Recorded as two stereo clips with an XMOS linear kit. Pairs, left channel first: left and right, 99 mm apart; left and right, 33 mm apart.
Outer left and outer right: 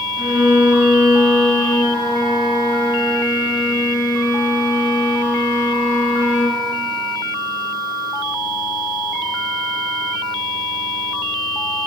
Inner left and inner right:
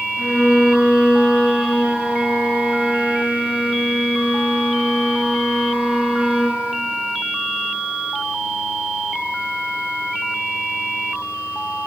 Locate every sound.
0.2 s a violin: 25° right (ahead or behind), 1.5 m